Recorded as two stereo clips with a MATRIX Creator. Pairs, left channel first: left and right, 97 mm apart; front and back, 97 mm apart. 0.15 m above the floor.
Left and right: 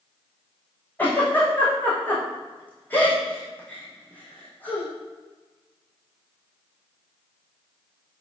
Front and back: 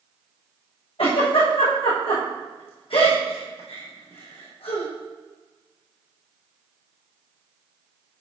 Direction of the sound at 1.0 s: 15° left.